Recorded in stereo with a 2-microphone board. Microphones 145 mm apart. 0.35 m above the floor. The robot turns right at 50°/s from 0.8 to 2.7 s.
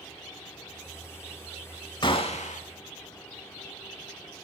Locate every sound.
2.0 s a gunshot: 35° left (ahead or behind), 0.6 m; by 2.6 s 65° left (ahead or behind), 0.6 m